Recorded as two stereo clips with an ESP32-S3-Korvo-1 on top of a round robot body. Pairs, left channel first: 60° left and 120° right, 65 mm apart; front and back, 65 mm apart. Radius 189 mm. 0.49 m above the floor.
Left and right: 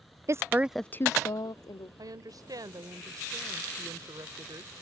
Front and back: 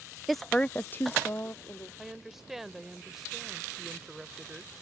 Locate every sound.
0.3 s a woman speaking: 90° right; by 1.9 s 65° left
2.0 s a woman speaking: 95° right